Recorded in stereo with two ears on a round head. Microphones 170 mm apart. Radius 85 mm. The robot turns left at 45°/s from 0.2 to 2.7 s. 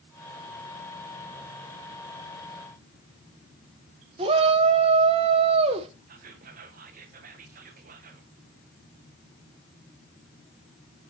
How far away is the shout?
About 0.9 m.